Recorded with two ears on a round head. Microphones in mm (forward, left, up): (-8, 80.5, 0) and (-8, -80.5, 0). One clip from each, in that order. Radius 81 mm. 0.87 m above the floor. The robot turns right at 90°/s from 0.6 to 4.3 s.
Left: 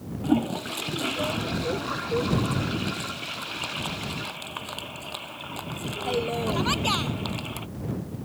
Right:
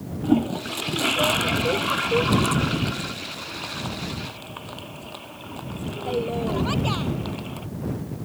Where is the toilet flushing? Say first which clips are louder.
Right 3 dB; 20° left (ahead or behind); by 7.7 s 50° left (ahead or behind).